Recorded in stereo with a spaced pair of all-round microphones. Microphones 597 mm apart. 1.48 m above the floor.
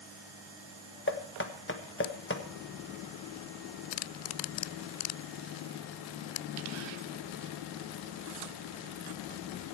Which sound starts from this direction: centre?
Knocking, at 1.1 s.